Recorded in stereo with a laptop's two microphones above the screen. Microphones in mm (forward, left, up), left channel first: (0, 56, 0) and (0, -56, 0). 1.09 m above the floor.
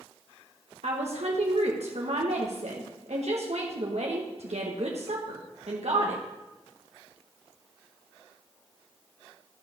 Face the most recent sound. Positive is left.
turn(degrees=-75)  # may be behind; listen again after turning